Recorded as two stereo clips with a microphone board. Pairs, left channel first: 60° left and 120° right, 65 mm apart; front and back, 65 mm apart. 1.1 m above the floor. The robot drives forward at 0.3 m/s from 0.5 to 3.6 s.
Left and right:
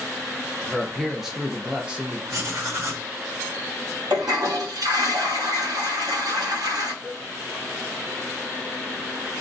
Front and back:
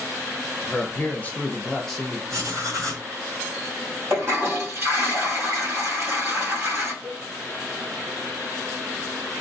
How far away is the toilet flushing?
About 1.1 m.